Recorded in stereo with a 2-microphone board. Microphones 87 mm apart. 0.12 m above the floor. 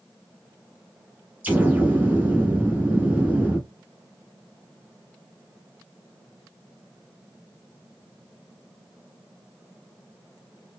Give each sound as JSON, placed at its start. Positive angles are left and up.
{"t": 1.4, "sound": "an explosion", "side_deg": -20, "distance_m": 1.8}